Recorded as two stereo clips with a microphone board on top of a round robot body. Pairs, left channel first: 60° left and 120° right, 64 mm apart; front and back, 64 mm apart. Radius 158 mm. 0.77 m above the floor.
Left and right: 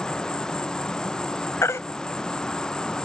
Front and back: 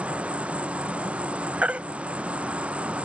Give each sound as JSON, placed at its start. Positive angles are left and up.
{"t": 0.0, "sound": "an insect", "azimuth_deg": 130}
{"t": 1.6, "sound": "a baby crying", "azimuth_deg": 110}